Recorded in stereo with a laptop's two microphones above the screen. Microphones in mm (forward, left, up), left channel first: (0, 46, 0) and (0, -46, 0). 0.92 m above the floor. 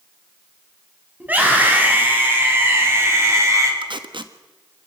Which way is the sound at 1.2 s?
15° right (ahead or behind).